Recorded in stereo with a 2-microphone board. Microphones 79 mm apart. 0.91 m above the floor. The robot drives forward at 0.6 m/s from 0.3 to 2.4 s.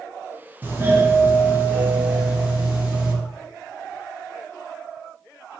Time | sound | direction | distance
0.6 | a doorbell | 25° right (ahead or behind) | 0.8 m